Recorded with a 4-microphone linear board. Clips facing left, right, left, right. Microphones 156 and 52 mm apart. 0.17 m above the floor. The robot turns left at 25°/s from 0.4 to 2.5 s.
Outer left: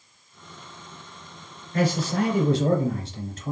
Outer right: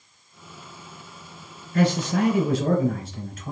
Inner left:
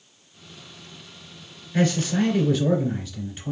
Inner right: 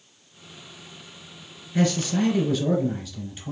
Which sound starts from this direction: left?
A man speaking, at 1.7 s.